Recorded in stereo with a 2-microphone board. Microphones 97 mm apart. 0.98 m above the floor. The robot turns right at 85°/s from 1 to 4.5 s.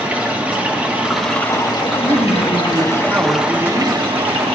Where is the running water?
15° right, 1.5 m; by 4.6 s 80° right, 1.5 m.